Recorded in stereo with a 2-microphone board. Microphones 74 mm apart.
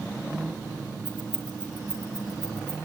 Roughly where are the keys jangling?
Right.